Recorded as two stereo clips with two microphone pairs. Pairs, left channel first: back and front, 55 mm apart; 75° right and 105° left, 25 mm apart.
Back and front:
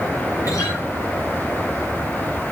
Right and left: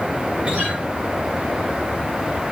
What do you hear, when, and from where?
0.5 s a guitar: 160° left, 10 m